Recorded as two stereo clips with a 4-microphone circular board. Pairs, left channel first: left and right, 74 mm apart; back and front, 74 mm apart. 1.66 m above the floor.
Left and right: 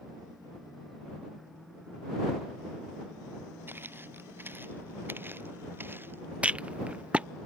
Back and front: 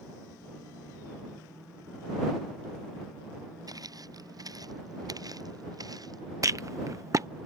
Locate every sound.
3.7 s footsteps: 30° right
6.4 s a rattle: 25° right